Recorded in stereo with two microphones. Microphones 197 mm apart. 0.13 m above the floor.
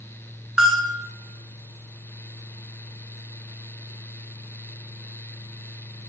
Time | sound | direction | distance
0.6 | a bell | 5° right (ahead or behind) | 1.3 m